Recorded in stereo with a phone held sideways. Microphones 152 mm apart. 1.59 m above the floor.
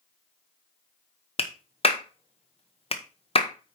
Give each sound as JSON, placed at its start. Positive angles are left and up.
{"t": 1.4, "sound": "a clap", "side_deg": 45, "distance_m": 1.0}